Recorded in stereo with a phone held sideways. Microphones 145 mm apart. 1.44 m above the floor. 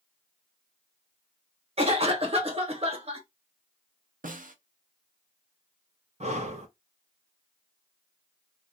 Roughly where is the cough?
Right.